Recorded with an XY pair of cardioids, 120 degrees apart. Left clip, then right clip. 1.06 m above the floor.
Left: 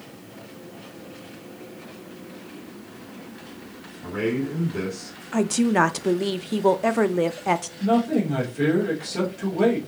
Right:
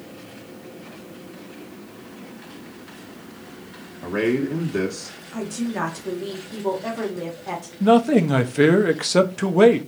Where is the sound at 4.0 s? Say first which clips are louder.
Right 4 dB; 60° right, 1.4 m.